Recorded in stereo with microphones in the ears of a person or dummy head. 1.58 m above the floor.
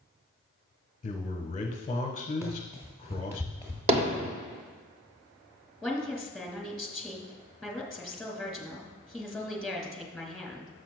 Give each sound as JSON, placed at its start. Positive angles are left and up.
{"t": 1.0, "sound": "a man speaking", "side_deg": 40, "distance_m": 1.2}
{"t": 2.4, "sound": "running footsteps", "side_deg": -10, "distance_m": 2.5}
{"t": 3.9, "sound": "hammering", "side_deg": -35, "distance_m": 1.2}
{"t": 5.8, "sound": "a woman speaking", "side_deg": 0, "distance_m": 2.0}